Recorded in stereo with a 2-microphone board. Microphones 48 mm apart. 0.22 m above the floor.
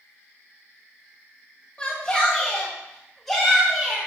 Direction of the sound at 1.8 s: 25° left (ahead or behind).